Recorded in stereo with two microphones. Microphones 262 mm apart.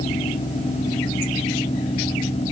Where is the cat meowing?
I don't hear a cat meowing.